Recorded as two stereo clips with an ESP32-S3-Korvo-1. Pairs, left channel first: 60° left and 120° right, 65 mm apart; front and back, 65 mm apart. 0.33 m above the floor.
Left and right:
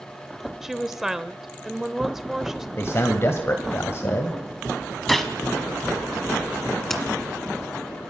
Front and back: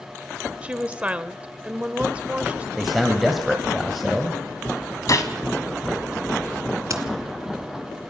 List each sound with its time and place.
0.6 s a woman speaking: 165° left, 0.9 m
2.8 s a man speaking: 90° left, 2 m
5.1 s a gunshot: 25° right, 2.0 m
6.9 s a crack: 145° left, 2 m